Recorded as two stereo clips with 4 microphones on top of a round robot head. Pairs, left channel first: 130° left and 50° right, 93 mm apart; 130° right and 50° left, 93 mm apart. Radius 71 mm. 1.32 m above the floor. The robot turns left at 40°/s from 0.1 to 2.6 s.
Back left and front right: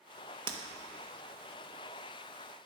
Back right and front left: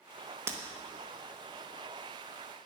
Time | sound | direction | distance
0.5 | breaking glass | 15° right | 1.2 m